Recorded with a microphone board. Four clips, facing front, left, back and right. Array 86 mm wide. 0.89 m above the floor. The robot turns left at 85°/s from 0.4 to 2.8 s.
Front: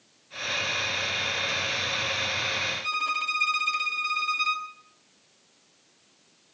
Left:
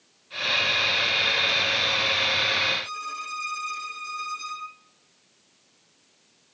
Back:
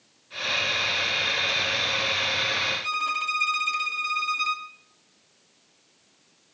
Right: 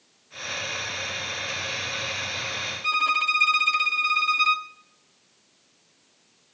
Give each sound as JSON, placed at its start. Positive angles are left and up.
{"t": 2.8, "sound": "a violin", "azimuth_deg": -90, "distance_m": 1.6}